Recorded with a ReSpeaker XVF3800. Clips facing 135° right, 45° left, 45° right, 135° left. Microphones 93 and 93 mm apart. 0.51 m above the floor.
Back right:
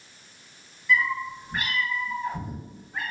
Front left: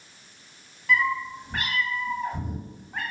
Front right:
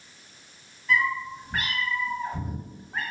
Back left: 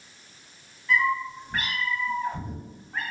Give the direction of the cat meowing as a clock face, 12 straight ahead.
11 o'clock.